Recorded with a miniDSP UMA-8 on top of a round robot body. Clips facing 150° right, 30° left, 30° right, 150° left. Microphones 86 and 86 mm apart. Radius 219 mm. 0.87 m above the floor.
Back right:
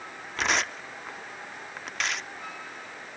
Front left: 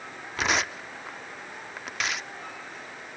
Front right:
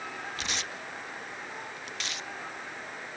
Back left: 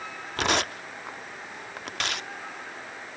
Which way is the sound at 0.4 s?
115° left.